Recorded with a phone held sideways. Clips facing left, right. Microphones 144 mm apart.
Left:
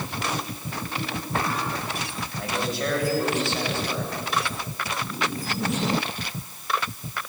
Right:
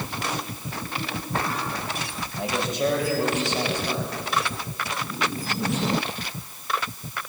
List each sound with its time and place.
2.4 s a man speaking: 25° right (ahead or behind), 7.5 m; by 4.1 s 15° right (ahead or behind), 7 m